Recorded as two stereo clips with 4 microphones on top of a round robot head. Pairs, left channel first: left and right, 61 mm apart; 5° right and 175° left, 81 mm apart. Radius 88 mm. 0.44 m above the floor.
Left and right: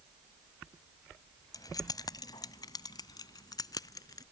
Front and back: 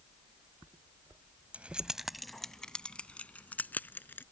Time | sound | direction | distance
1.5 | keys jangling | 105° left | ?